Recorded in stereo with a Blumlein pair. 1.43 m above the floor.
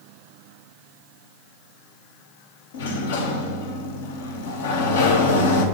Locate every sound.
2.7 s a sliding door: 60° left, 1.0 m